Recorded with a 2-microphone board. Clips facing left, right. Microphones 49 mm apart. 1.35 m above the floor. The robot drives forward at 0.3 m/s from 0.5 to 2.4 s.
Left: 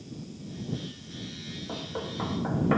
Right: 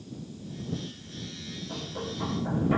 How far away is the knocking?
About 1.5 m.